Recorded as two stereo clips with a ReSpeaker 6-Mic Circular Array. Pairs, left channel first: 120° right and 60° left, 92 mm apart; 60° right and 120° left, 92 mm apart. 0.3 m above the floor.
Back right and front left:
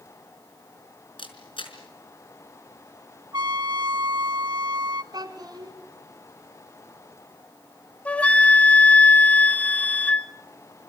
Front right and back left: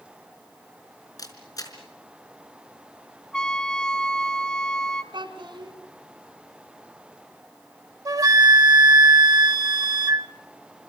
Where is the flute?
165° left, 0.7 m.